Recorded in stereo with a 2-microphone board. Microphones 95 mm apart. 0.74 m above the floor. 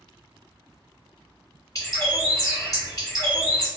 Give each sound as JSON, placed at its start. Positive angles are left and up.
{"t": 1.8, "sound": "a bird", "side_deg": 35, "distance_m": 1.4}